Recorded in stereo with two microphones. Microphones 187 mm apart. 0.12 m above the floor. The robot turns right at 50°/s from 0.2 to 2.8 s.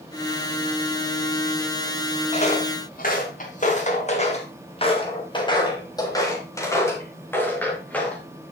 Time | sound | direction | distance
2.3 | footsteps | 35° left (ahead or behind) | 3.5 m